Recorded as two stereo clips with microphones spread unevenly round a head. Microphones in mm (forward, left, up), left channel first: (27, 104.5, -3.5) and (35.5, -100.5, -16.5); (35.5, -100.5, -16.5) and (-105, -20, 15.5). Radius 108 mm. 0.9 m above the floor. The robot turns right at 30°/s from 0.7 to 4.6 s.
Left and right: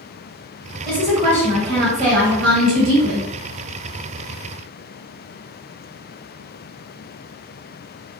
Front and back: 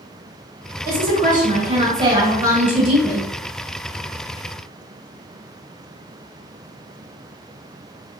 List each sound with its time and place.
0.8 s a woman speaking: 175° left, 0.9 m; by 3.3 s 110° right, 0.9 m